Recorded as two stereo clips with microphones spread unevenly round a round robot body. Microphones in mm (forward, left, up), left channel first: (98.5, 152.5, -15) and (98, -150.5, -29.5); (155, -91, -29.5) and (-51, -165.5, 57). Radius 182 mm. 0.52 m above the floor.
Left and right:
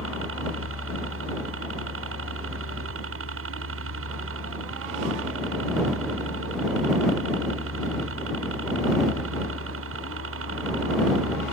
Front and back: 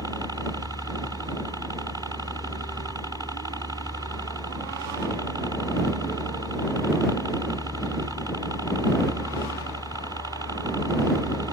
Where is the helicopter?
70° right.